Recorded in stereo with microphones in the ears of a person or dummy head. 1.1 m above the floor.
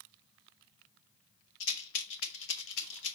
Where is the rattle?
80° left, 1.2 m.